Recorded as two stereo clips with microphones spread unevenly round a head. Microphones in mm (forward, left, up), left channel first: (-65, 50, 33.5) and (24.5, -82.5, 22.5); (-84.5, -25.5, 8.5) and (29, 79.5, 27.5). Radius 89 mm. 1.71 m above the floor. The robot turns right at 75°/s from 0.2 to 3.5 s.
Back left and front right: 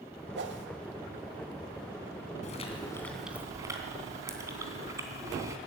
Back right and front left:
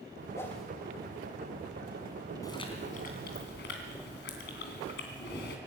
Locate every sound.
0.3 s a whoosh: 65° right, 1.8 m; by 0.7 s 40° right, 1.8 m
2.4 s chewing: 155° left, 3 m; by 5.6 s 125° right, 3 m